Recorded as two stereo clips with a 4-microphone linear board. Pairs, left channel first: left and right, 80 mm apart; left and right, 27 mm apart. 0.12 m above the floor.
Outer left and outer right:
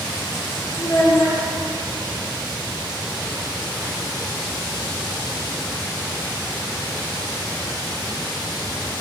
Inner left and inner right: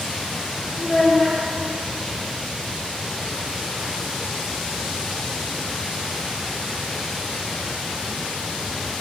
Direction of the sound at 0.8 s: 55° left (ahead or behind).